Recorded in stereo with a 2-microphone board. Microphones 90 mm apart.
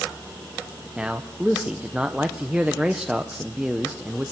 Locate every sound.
1.0 s a man speaking: 15° right (ahead or behind), 0.9 m